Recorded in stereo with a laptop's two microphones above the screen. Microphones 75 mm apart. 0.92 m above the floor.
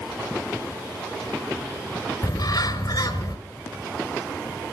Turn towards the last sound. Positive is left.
turn(degrees=60)  # may be behind; listen again after turning